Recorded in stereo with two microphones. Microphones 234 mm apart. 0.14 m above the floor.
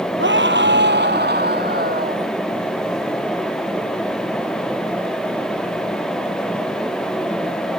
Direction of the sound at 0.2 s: 55° right (ahead or behind).